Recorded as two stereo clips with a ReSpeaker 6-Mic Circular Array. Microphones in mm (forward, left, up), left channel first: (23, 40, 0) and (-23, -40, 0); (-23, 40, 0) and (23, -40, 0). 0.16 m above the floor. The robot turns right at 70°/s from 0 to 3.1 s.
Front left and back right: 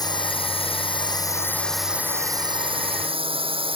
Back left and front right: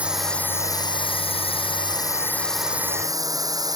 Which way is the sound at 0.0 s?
15° left.